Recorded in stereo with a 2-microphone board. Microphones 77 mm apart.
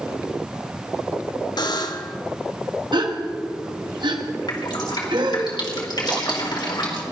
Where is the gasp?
85° right, 1.2 m.